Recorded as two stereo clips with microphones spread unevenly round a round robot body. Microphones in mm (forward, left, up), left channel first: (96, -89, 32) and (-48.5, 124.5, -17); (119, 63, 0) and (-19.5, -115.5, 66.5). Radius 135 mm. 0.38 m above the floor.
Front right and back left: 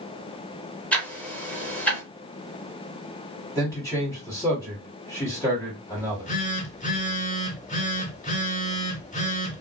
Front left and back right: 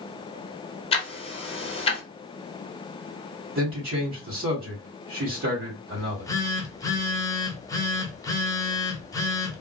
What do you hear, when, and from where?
0.9 s ticking: 40° left, 0.7 m
3.5 s a man speaking: 145° right, 1.6 m
6.0 s a phone buzzing: 10° left, 0.8 m